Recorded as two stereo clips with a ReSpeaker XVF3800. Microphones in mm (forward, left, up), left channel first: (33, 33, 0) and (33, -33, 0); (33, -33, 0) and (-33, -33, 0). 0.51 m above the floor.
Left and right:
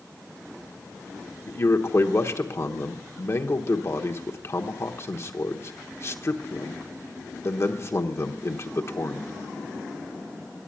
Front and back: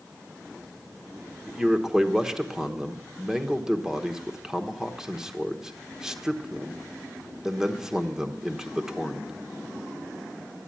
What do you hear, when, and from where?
1.5 s a man speaking: 105° left, 1.0 m